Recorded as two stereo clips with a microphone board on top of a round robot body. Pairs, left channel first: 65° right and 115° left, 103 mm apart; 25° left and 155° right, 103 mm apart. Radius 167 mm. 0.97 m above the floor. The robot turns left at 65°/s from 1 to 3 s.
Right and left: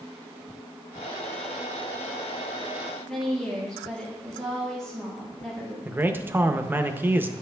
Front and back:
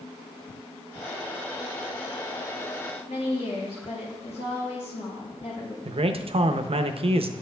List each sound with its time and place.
3.1 s a woman speaking: 15° left, 4 m
5.8 s a man speaking: straight behind, 0.6 m